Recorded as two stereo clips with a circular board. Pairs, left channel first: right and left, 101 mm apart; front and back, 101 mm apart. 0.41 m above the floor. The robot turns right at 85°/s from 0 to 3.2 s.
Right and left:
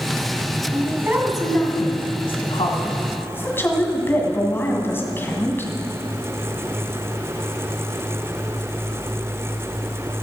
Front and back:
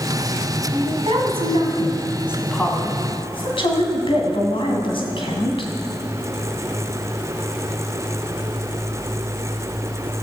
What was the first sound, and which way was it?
A woman speaking, 125° left.